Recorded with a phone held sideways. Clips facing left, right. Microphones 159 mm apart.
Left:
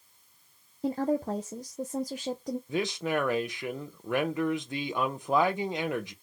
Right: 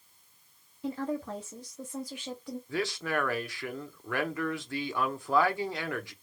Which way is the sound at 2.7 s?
20° left (ahead or behind).